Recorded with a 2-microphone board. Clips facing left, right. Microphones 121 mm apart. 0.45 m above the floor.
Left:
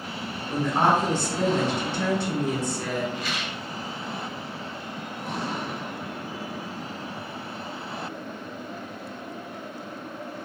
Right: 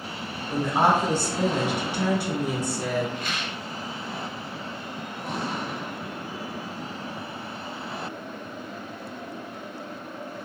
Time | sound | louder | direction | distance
0.5 | a woman speaking | even | 10° right (ahead or behind) | 1.0 m
3.1 | a rattle | even | 50° right (ahead or behind) | 1.0 m